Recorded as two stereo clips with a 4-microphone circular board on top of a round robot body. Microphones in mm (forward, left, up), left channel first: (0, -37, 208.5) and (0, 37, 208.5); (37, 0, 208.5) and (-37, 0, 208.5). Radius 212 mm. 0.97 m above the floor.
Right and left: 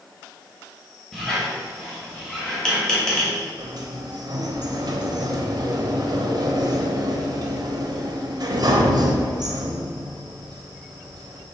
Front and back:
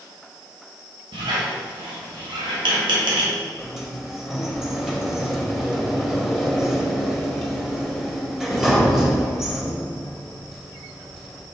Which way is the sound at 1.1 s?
170° right.